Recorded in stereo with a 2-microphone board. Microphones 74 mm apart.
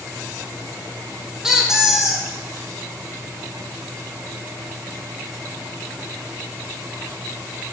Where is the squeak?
5° right (ahead or behind), 1.2 m.